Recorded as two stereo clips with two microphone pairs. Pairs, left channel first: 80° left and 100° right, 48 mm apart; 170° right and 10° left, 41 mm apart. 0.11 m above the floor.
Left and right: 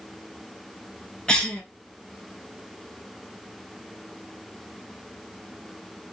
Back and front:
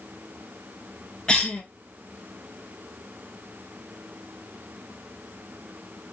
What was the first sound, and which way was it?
A cough, 140° left.